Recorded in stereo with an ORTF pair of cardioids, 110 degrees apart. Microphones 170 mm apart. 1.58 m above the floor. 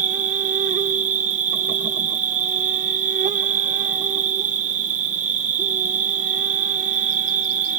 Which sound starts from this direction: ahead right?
An insect, at 0.0 s.